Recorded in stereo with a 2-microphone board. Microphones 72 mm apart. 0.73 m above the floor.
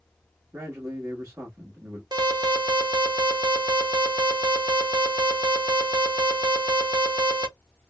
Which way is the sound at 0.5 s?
30° right (ahead or behind).